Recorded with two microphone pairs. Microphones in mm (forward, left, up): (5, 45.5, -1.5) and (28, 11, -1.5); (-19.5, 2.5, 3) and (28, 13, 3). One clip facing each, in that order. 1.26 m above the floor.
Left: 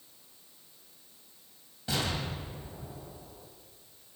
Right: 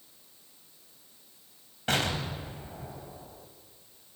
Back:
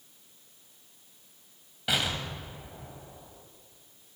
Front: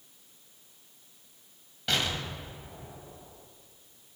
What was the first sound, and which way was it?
An explosion, 85° right.